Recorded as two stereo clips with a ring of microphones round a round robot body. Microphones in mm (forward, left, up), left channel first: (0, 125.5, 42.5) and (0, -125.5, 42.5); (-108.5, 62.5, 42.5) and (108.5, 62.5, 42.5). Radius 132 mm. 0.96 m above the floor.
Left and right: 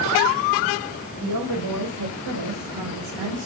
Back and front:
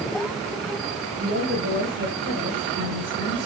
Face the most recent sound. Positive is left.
turn(degrees=-75)